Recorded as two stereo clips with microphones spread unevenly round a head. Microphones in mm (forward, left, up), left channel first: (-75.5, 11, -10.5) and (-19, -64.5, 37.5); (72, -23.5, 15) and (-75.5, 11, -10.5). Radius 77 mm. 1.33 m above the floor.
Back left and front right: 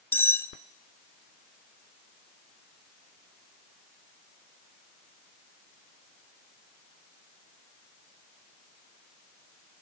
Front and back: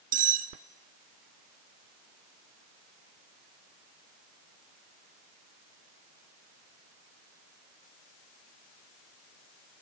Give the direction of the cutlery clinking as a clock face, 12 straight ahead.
5 o'clock.